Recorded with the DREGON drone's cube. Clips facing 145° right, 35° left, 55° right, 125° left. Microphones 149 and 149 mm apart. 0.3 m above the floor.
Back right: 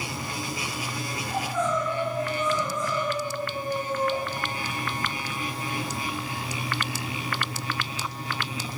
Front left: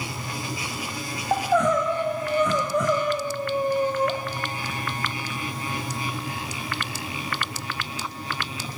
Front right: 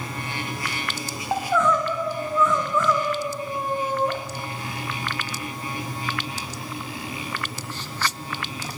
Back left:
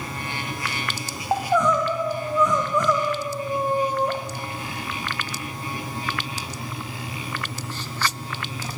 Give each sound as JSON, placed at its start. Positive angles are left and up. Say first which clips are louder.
{"t": 1.3, "sound": "crying", "louder": "front left 7 dB, back left 1 dB", "azimuth_deg": 50, "distance_m": 5.0}